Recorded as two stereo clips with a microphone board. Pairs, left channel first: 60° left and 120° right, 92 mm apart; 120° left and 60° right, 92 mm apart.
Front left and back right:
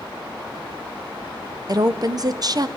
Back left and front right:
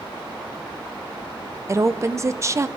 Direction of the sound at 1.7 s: 105° right.